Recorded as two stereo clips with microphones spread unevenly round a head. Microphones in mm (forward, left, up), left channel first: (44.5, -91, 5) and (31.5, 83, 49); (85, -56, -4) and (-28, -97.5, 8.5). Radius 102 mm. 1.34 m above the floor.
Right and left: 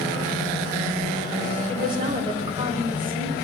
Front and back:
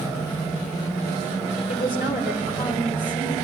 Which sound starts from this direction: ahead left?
A woman speaking, at 1.7 s.